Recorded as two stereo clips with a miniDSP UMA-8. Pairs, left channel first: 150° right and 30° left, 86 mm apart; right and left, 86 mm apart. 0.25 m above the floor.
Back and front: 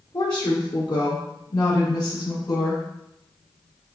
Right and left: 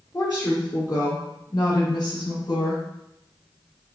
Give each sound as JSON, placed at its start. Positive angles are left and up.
{"t": 0.1, "sound": "a woman speaking", "azimuth_deg": -145, "distance_m": 2.5}